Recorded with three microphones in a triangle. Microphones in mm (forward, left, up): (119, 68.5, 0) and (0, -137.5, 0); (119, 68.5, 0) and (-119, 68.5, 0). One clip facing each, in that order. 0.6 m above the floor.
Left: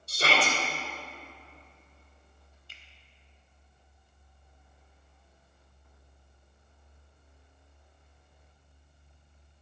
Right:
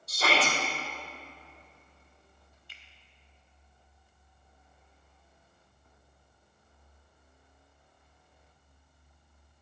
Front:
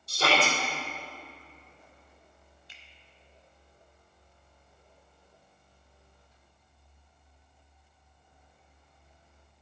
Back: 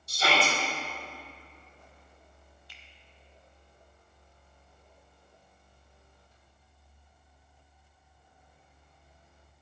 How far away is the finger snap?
About 1.2 m.